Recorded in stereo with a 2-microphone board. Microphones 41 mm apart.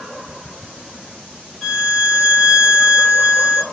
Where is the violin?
Centre (ahead or behind), 0.8 m.